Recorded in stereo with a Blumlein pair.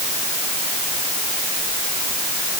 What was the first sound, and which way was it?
Only background noise.